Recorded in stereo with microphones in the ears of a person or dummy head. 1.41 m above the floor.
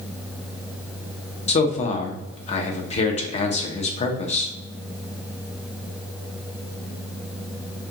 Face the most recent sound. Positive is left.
turn(degrees=40)  # may be behind; listen again after turning